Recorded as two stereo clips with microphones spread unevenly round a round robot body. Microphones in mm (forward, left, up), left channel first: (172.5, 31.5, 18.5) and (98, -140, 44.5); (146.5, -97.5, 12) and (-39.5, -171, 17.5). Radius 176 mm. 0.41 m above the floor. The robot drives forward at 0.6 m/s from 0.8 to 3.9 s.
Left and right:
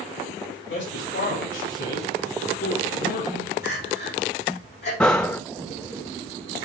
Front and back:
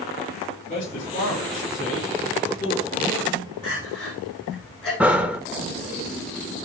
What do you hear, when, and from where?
0.7 s a man speaking: 85° left, 4.5 m; by 3.4 s 105° left, 4.5 m
3.6 s crying: 110° left, 7.5 m
5.0 s breathing: 125° left, 0.5 m